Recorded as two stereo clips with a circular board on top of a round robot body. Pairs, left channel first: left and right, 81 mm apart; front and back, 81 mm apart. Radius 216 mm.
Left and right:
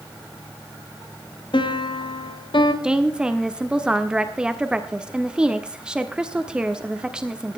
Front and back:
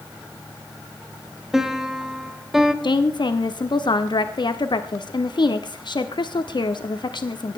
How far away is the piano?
About 3 m.